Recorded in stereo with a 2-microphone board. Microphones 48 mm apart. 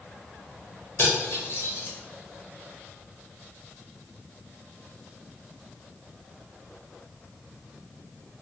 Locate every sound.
1.0 s cutlery clinking: 55° left (ahead or behind), 0.9 m